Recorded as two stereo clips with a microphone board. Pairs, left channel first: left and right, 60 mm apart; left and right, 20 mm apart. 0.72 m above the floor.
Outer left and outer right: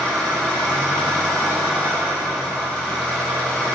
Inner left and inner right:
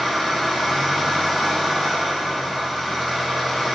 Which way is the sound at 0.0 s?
20° left (ahead or behind).